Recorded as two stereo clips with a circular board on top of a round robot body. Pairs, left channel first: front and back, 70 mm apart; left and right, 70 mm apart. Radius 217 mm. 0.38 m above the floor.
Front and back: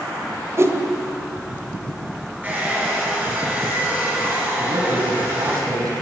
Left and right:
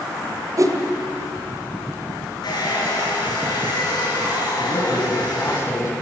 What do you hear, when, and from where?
0.6 s a whoosh: 130° right, 2.0 m
2.4 s a hair dryer: 110° left, 7 m
4.6 s a man speaking: 145° left, 5 m